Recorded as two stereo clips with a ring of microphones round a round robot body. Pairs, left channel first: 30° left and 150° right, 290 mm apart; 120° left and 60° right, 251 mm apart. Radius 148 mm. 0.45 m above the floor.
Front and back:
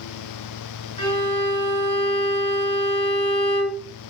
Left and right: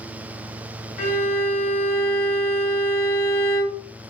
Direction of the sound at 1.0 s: 145° left.